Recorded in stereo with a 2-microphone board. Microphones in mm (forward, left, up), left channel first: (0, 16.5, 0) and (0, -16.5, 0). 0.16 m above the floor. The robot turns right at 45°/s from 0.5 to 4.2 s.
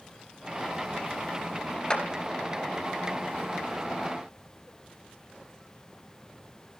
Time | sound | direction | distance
1.9 | a clap | 25° left (ahead or behind) | 2.5 m